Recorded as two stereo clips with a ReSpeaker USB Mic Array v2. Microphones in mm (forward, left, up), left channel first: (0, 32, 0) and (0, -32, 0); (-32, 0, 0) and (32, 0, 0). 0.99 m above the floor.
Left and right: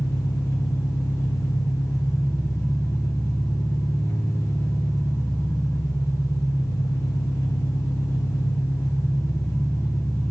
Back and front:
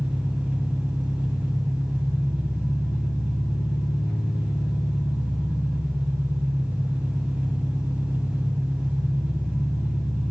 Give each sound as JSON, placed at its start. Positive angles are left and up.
{"t": 0.0, "sound": "an engine running", "azimuth_deg": 65, "distance_m": 1.8}